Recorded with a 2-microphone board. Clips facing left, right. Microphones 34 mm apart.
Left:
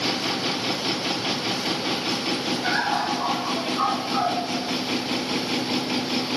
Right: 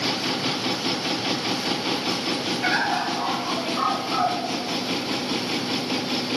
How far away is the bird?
About 7 m.